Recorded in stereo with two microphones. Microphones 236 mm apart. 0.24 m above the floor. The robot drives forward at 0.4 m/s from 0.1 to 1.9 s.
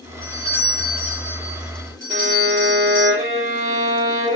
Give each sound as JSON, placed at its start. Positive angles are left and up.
{"t": 0.2, "sound": "a doorbell", "side_deg": -75, "distance_m": 5.0}
{"t": 2.1, "sound": "a violin", "side_deg": -35, "distance_m": 4.0}